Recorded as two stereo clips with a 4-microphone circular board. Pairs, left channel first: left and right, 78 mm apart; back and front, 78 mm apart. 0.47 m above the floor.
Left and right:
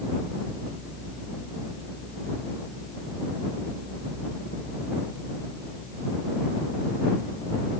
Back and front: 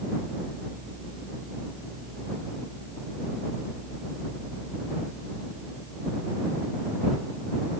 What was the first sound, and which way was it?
Only background noise.